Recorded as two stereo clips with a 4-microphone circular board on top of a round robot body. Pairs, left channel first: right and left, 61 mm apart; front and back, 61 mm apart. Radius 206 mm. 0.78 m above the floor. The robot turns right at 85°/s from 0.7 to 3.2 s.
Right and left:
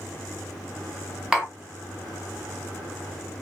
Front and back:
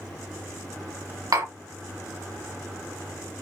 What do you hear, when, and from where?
1.3 s tapping: 170° left, 3.5 m; by 1.5 s 170° right, 3.5 m